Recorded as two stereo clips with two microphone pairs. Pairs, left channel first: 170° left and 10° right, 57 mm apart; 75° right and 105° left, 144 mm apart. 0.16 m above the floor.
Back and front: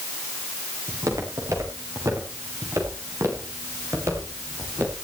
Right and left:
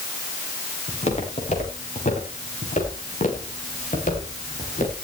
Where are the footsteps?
40° right, 9.5 m; by 5.0 s 55° right, 10.5 m.